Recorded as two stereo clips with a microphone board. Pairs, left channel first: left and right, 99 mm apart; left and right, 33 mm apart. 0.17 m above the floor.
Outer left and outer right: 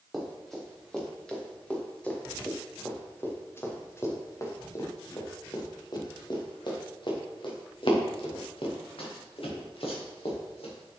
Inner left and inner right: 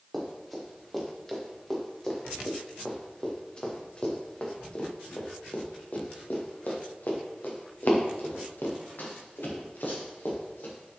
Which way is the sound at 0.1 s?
Centre (ahead or behind).